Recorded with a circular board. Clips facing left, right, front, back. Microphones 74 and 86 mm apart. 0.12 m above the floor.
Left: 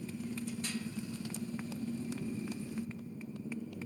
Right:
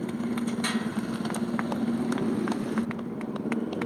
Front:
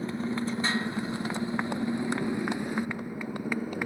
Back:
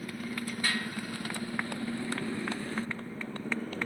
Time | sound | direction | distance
0.0 | a motorcycle | 65° right | ?